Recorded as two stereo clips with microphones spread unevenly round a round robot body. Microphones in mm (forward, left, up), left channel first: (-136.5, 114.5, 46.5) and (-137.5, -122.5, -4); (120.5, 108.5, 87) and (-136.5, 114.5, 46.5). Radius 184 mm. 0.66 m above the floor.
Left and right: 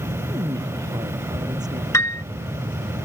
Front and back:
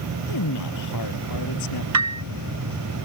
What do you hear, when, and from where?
0.3 s a man speaking: 10° right
1.9 s a piano: 165° left